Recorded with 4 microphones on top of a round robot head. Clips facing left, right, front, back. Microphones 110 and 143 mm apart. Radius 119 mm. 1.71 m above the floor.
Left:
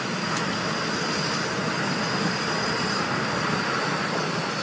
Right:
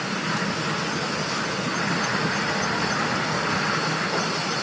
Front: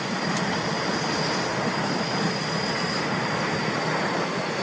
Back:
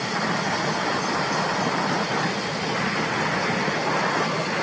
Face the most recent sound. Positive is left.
No sound to turn to.